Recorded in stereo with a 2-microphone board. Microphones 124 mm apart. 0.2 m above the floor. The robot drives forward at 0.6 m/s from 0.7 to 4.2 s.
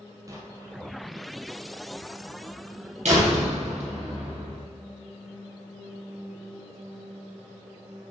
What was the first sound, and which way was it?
An explosion, 30° right (ahead or behind).